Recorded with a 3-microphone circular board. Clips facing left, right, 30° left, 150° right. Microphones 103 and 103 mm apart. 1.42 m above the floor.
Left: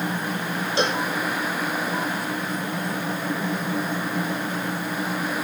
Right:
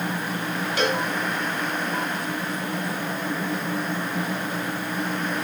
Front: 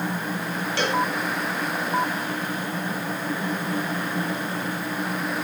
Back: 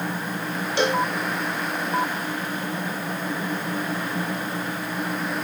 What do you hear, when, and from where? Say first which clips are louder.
0.8 s a cowbell: even, back 2 dB; 145° left, 1.8 m